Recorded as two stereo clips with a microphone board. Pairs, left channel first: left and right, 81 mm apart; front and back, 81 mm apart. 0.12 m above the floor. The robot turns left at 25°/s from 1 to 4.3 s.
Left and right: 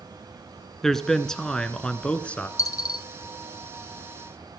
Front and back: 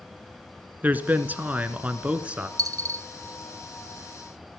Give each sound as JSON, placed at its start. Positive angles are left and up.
{"t": 0.8, "sound": "a man speaking", "azimuth_deg": 165, "distance_m": 1.1}
{"t": 2.6, "sound": "a dropped coin", "azimuth_deg": 135, "distance_m": 0.6}